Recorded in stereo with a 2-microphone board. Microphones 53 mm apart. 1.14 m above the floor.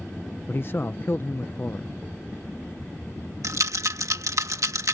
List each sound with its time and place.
0.5 s a man speaking: 45° left (ahead or behind)
3.4 s a rattle: 80° right